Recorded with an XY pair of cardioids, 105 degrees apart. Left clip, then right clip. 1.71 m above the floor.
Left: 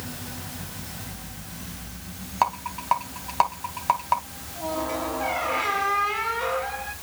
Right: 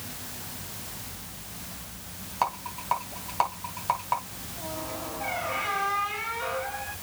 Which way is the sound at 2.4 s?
30° left.